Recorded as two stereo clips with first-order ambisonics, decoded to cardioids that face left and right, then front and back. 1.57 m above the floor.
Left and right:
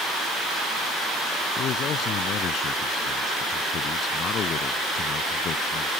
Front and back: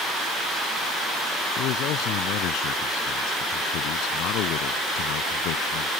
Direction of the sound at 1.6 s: 35° left.